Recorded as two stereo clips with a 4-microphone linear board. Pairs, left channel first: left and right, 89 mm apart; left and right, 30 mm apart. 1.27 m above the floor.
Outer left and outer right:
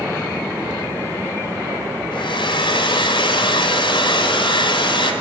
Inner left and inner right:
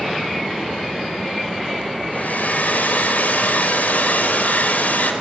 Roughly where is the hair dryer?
Left.